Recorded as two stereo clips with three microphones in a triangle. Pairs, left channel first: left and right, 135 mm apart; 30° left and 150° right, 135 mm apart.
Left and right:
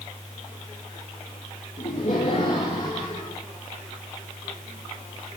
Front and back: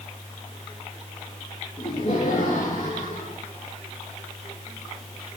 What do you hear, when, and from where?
1.8 s laughter: 75° left, 3.5 m; by 3.4 s 55° left, 3.5 m